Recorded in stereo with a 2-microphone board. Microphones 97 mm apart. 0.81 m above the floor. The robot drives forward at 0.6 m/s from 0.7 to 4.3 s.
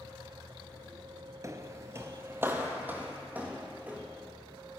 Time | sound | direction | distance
1.4 | footsteps | 30° right (ahead or behind) | 0.9 m